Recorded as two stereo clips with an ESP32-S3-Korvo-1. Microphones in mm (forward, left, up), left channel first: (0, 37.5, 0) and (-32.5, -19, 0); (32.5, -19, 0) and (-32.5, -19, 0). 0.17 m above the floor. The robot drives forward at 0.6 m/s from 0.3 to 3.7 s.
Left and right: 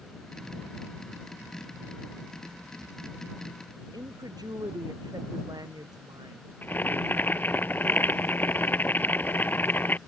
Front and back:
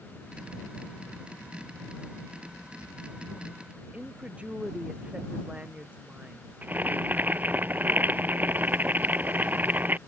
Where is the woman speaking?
110° right.